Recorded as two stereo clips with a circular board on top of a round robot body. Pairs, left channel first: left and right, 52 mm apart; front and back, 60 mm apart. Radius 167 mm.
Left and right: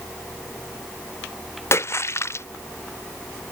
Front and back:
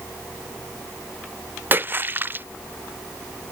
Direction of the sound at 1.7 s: 120° left.